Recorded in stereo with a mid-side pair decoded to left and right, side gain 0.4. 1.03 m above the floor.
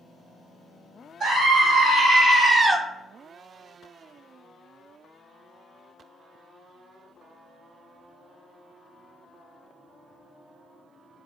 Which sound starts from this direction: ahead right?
A scream, at 1.2 s.